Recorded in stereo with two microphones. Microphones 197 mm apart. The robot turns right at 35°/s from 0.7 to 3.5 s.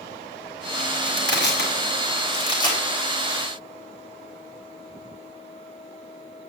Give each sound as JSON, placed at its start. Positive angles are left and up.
{"t": 1.0, "sound": "crushing", "side_deg": 75, "distance_m": 4.5}